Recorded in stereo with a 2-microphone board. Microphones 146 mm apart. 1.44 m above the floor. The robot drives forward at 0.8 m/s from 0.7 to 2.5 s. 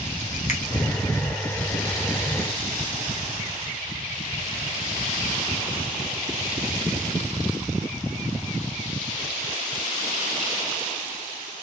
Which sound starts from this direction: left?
A finger snap, at 0.5 s.